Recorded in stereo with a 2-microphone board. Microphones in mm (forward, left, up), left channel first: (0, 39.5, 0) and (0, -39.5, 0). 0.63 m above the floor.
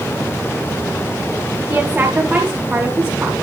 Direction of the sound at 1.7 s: 20° right (ahead or behind).